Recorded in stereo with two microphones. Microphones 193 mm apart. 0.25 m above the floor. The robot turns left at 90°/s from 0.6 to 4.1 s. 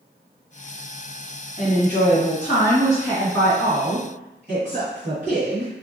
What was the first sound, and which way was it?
A woman speaking, 125° left.